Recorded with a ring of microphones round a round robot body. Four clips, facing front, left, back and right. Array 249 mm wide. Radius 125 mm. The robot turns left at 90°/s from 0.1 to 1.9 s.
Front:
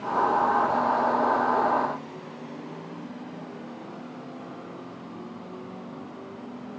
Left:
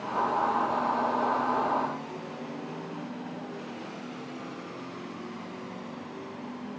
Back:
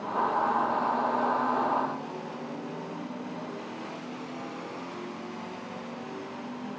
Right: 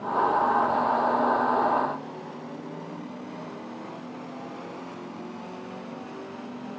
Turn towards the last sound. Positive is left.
No sound to turn to.